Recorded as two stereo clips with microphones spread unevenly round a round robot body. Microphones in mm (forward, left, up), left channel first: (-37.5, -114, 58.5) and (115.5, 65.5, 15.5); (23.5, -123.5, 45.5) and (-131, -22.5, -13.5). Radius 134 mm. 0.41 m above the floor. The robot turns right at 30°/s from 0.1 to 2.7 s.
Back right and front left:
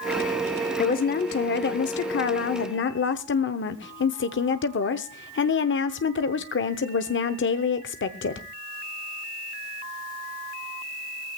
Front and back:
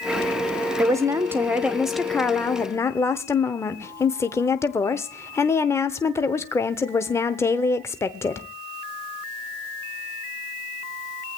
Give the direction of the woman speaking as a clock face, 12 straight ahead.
6 o'clock.